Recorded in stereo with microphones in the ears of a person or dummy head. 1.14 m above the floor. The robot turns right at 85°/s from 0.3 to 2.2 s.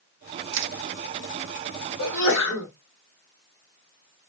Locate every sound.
0.5 s crushing: 75° right (ahead or behind), 0.7 m; by 0.7 s 55° right (ahead or behind), 0.7 m
2.0 s a sneeze: 75° left (ahead or behind), 1.3 m; by 2.7 s 55° left (ahead or behind), 1.3 m